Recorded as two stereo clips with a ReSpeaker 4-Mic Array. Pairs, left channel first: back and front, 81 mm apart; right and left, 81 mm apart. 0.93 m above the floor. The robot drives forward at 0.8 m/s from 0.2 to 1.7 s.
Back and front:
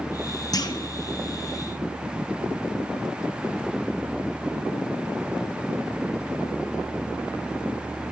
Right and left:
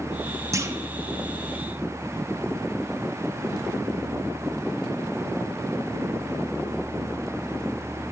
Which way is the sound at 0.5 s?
140° left.